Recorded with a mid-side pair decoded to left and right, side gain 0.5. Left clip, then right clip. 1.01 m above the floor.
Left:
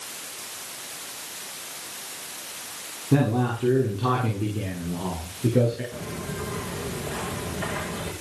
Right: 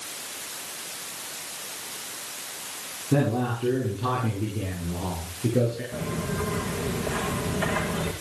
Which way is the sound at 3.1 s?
20° left.